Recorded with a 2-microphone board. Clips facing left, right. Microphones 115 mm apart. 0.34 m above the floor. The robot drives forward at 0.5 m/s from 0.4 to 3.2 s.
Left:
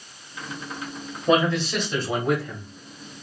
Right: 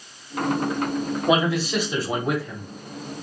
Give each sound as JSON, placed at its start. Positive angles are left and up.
{"t": 1.3, "sound": "a man speaking", "side_deg": -10, "distance_m": 1.6}